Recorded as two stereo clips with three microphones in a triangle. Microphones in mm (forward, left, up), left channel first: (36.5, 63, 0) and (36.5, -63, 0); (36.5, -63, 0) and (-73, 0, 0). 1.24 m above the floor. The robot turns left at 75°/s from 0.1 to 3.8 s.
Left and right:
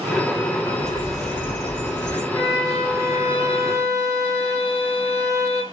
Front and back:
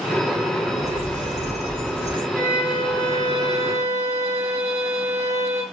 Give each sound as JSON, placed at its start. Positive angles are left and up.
{"t": 0.8, "sound": "a bird", "azimuth_deg": 180, "distance_m": 1.1}
{"t": 2.3, "sound": "a violin", "azimuth_deg": 85, "distance_m": 1.4}